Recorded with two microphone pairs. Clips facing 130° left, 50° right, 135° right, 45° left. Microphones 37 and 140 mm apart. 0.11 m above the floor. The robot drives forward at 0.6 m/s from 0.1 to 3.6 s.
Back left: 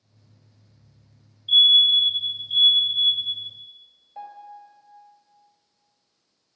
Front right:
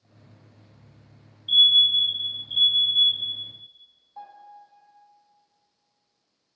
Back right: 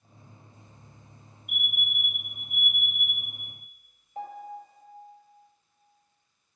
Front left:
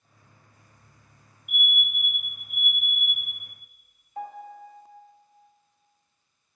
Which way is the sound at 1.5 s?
105° right.